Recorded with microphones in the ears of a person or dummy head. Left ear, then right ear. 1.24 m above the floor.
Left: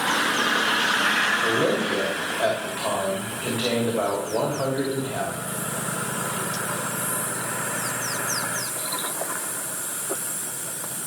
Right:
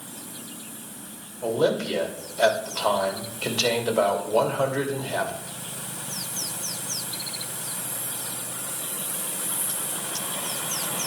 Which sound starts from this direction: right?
A man speaking, at 1.4 s.